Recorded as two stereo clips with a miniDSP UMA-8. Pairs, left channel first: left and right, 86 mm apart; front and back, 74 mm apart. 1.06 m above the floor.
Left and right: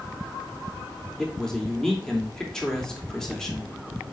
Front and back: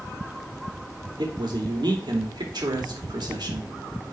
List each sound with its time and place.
1.2 s a man speaking: 175° left, 2.5 m